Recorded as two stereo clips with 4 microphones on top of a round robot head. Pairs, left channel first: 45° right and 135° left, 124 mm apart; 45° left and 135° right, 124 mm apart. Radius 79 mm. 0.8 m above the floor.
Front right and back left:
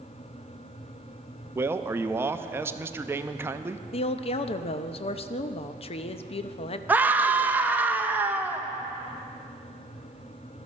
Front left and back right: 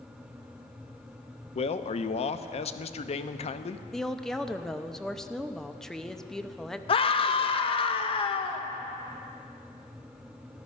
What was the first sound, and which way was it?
A man speaking, 65° left.